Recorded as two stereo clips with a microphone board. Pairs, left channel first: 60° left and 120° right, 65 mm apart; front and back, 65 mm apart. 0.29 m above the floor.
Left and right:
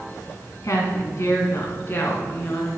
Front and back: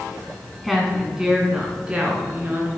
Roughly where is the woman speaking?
Left.